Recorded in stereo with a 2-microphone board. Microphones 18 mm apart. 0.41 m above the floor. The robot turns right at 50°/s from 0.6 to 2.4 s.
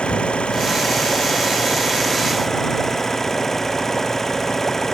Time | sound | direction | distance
0.0 | an engine running | 70° left | ?